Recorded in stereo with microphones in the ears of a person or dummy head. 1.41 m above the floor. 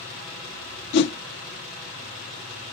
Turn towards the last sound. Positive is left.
turn(degrees=55)  # may be behind; listen again after turning